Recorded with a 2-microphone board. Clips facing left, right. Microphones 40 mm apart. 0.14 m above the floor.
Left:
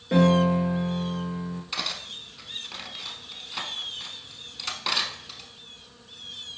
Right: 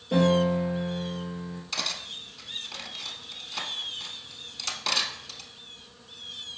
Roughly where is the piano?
Left.